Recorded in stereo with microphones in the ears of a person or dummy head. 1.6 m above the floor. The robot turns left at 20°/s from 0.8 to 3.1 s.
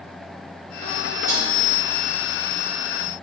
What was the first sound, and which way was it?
A snare drum, 10° right (ahead or behind).